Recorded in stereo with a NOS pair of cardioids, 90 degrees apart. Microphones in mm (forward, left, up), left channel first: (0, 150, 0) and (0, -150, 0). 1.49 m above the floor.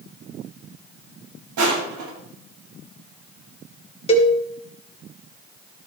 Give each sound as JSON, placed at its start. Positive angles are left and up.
{"t": 1.6, "sound": "crushing", "azimuth_deg": -65, "distance_m": 8.0}
{"t": 4.1, "sound": "a cowbell", "azimuth_deg": 20, "distance_m": 3.5}